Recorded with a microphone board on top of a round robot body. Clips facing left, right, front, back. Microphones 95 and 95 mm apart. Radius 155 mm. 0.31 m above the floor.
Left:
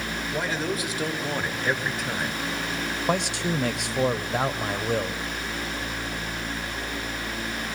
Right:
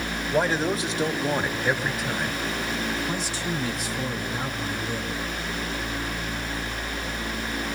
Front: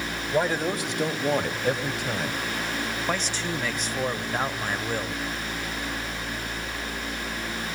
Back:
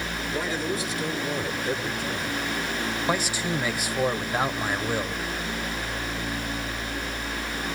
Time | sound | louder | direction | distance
0.3 | a man speaking | right 6 dB, front 5 dB | 40° right | 2.5 m
3.1 | a man speaking | left 4 dB, back 3 dB | 100° left | 1.9 m